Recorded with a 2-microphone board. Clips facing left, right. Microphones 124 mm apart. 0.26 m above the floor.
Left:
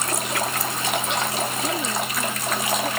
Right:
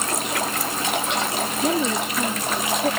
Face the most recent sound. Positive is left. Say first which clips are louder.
# right 4 dB
turn(degrees=-35)  # may be behind; listen again after turning